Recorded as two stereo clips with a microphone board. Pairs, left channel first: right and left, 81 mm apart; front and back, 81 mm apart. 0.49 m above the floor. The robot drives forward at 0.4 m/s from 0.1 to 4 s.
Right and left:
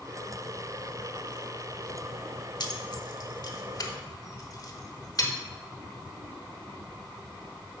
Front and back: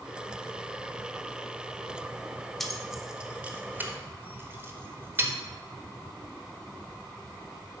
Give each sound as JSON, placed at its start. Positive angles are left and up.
{"t": 2.6, "sound": "keys jangling", "azimuth_deg": -85, "distance_m": 0.9}